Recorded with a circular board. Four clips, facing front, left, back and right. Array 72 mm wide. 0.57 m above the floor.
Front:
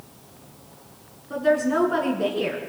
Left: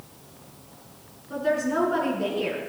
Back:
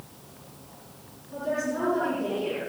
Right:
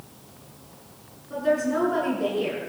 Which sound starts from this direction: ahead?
A woman speaking, at 1.3 s.